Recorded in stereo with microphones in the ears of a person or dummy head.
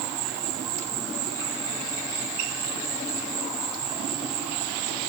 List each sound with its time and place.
0.0 s an insect: 5° left (ahead or behind), 5.5 m